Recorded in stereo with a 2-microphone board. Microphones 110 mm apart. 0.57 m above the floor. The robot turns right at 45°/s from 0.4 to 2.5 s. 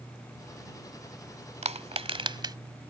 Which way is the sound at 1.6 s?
75° right (ahead or behind).